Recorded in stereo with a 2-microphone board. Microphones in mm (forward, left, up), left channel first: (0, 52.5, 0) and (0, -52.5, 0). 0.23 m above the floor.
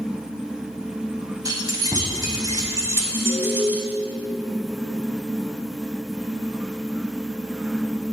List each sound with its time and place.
1.4 s keys jangling: 35° right (ahead or behind), 1.2 m; by 3.9 s 20° right (ahead or behind), 1.6 m
3.1 s an alarm: 10° right (ahead or behind), 2 m